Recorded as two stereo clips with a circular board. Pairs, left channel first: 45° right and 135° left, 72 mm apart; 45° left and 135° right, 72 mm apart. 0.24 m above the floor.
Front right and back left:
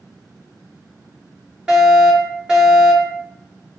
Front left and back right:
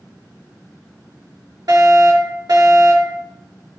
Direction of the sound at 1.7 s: 150° right.